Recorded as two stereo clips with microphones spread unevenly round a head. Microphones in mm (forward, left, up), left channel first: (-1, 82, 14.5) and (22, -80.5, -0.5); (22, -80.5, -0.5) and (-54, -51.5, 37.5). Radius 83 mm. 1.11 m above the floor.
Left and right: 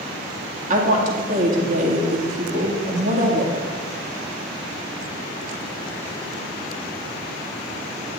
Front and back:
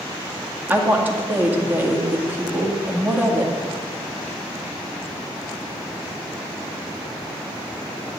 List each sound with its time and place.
0.7 s a woman speaking: 125° right, 2 m